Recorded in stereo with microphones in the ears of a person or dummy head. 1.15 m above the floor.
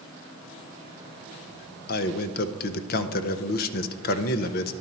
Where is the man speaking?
55° left (ahead or behind), 0.6 m.